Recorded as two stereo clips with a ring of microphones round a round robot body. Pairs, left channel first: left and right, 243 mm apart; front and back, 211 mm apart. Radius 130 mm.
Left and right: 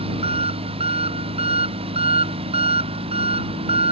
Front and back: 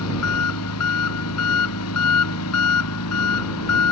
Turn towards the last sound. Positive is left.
turn(degrees=-20)